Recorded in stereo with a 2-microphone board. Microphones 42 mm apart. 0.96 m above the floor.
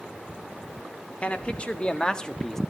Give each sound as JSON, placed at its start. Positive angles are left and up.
{"t": 1.2, "sound": "a man speaking", "side_deg": 30, "distance_m": 1.9}